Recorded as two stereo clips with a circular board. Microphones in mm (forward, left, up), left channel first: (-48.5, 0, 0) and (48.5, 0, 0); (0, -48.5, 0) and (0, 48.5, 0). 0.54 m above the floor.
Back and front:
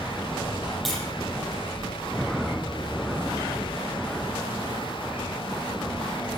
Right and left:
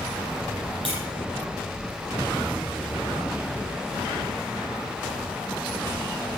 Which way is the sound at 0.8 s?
90° left.